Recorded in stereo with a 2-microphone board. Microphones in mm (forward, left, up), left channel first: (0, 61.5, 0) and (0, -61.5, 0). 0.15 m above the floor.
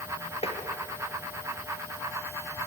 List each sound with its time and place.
0.4 s tapping: 60° left (ahead or behind), 2.5 m